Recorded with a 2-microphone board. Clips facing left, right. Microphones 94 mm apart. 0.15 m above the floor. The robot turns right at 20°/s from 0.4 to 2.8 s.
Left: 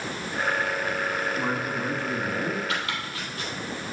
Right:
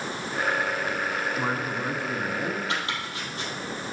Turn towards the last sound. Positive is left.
turn(degrees=-30)  # may be behind; listen again after turning